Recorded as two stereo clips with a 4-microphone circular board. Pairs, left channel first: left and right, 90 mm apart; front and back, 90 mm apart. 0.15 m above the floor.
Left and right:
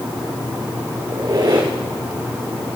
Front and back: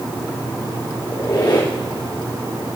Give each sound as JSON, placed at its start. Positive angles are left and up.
{"t": 1.1, "sound": "a squeak", "azimuth_deg": -45, "distance_m": 4.5}